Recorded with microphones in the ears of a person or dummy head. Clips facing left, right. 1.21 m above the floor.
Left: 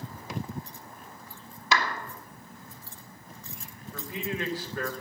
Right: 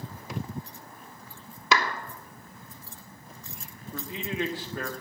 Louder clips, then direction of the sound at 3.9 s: Right 1 dB; 20° right (ahead or behind).